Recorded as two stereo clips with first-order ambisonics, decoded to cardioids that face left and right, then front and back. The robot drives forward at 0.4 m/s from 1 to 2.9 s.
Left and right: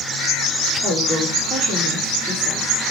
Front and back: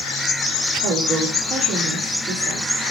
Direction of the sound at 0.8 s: 155° right.